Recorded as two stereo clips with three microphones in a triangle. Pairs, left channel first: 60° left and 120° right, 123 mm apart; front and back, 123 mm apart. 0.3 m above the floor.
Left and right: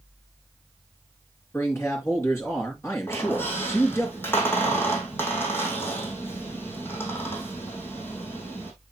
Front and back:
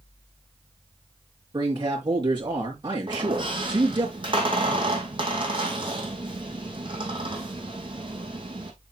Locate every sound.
1.5 s a man speaking: 130° left, 5 m
3.1 s a squeak: 130° left, 3 m